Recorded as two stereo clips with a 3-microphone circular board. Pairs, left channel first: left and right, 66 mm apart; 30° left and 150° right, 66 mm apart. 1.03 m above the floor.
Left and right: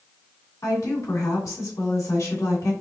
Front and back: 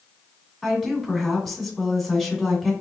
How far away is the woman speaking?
About 2.0 m.